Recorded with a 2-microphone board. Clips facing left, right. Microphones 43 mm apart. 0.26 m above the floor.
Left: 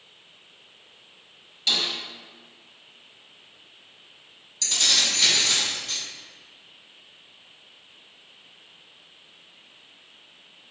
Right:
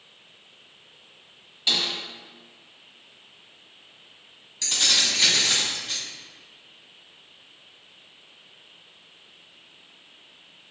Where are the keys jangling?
20° right (ahead or behind), 1.4 m.